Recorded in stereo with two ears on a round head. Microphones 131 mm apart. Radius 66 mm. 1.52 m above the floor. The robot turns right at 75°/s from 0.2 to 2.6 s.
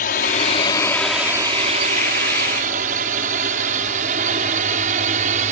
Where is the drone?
65° left (ahead or behind); by 5.5 s 55° right (ahead or behind).